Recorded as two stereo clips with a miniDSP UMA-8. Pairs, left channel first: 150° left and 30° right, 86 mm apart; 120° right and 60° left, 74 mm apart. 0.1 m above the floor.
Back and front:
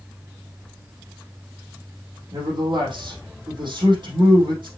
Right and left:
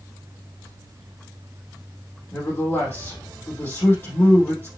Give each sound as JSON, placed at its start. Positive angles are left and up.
{"t": 2.3, "sound": "a man speaking", "azimuth_deg": -60, "distance_m": 4.0}